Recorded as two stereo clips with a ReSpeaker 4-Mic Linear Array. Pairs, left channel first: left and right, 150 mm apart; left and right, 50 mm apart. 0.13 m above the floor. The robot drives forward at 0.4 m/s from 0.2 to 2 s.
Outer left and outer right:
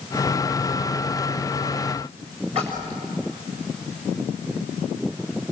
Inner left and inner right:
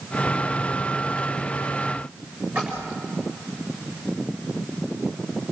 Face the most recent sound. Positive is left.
turn(degrees=-40)  # may be behind; listen again after turning